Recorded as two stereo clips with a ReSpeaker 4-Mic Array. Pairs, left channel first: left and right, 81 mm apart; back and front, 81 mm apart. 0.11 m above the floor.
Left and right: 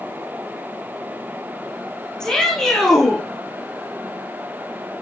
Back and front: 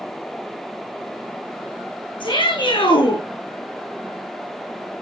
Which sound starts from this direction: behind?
A shout, at 2.2 s.